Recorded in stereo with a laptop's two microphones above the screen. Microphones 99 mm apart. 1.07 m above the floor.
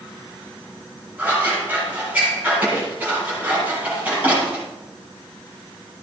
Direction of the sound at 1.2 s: 20° right (ahead or behind).